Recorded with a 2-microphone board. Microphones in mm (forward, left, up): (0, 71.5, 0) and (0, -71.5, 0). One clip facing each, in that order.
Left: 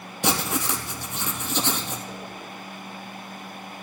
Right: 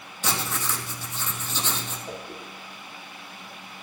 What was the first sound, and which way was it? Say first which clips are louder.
Writing: left 5 dB; 70° left (ahead or behind).